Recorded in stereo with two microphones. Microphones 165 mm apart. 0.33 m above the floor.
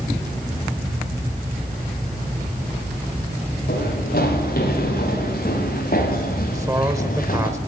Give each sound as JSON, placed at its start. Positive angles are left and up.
{"t": 3.7, "sound": "running footsteps", "side_deg": 60, "distance_m": 5.0}
{"t": 6.5, "sound": "a man speaking", "side_deg": -20, "distance_m": 1.1}